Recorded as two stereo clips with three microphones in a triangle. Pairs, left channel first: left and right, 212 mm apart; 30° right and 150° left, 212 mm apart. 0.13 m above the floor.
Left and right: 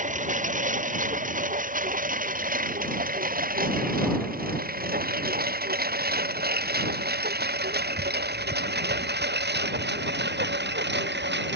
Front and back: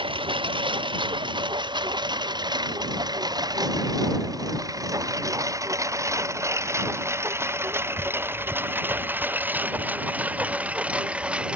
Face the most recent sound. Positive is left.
turn(degrees=-125)